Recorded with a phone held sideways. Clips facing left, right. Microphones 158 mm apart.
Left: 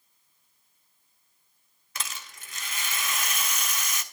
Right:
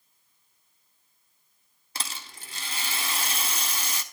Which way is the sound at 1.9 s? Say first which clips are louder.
Right 1 dB; 30° right (ahead or behind).